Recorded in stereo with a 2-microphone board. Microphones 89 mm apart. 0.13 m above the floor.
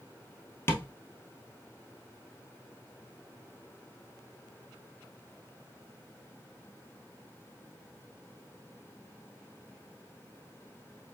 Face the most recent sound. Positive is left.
turn(degrees=25)  # may be behind; listen again after turning